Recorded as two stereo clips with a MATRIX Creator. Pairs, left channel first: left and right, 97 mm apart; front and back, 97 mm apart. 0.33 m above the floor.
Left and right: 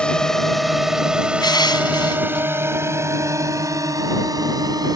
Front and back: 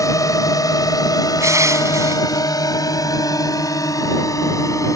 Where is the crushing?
125° left.